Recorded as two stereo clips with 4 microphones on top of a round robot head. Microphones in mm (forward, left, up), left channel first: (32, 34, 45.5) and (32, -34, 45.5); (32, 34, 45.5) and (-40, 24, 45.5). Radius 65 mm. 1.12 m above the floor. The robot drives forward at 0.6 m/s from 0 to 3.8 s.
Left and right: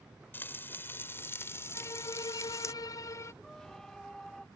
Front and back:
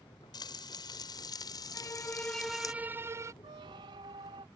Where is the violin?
50° left; by 3.3 s 145° left.